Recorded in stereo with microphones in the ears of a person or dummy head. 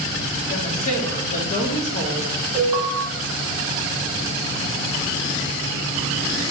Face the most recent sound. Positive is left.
turn(degrees=-25)  # may be behind; listen again after turning